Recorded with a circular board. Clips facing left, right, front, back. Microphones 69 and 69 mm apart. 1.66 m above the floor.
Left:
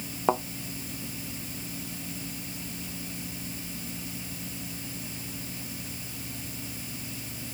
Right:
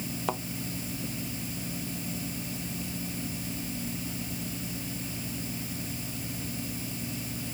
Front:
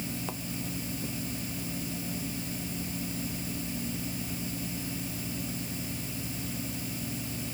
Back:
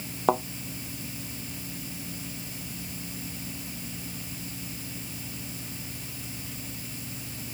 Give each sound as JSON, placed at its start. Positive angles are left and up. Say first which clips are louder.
{"t": 0.3, "sound": "a thud", "louder": "left 8 dB, back 15 dB", "azimuth_deg": 150}